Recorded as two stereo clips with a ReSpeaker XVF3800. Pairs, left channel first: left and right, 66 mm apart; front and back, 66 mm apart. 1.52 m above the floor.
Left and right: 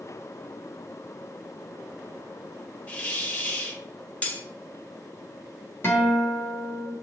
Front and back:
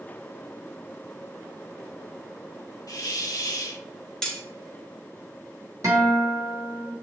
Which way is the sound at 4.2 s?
60° left.